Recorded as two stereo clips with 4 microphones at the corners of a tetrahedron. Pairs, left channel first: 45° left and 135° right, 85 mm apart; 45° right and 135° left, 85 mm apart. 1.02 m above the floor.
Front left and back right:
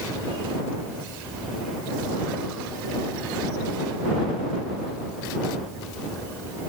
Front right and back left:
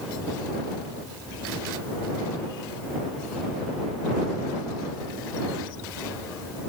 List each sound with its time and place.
Only background noise.